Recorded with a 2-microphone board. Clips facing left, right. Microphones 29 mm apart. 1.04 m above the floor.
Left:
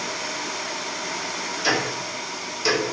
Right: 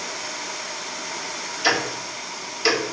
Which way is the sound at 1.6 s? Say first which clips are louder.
Right 2 dB; 30° right (ahead or behind).